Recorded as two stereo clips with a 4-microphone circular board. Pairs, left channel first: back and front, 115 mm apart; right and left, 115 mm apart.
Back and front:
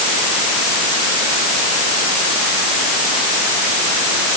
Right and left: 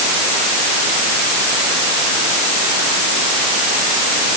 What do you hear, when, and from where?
Only background noise.